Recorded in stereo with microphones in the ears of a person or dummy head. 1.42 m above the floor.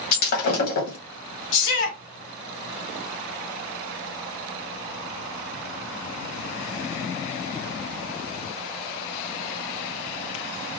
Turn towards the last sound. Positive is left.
turn(degrees=65)  # may be behind; listen again after turning